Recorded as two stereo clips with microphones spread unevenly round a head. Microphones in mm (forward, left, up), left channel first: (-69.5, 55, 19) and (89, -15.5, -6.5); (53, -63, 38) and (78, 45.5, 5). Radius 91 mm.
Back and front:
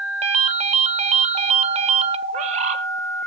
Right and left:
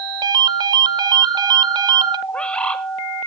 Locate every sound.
0.2 s a ringtone: 20° left, 0.7 m
2.3 s a bird: 60° right, 1.0 m